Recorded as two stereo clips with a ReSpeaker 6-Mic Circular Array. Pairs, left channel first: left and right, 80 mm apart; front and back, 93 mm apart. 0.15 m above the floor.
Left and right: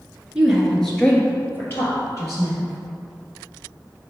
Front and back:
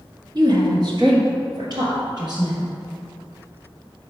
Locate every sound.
0.3 s a woman speaking: 165° right, 1.6 m; by 2.6 s 135° left, 3.5 m